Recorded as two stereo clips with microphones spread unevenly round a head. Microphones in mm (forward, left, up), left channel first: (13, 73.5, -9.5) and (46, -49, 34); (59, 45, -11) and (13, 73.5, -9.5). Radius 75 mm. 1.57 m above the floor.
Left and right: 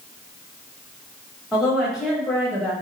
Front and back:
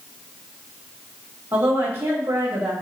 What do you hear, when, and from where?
1.5 s a woman speaking: 160° right, 1.2 m